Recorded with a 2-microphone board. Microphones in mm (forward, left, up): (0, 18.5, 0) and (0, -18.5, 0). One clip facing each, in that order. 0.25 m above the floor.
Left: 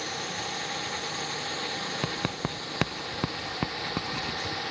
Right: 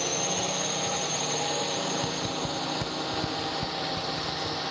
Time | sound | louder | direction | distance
0.0 | a drone | right 4 dB | 75° right (ahead or behind) | ?
2.0 | writing | right 1 dB | 70° left (ahead or behind) | ?